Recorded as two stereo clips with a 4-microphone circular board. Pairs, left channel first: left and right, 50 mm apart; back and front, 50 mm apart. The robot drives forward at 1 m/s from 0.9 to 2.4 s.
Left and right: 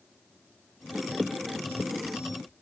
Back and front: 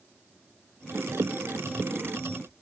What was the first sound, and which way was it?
Only background noise.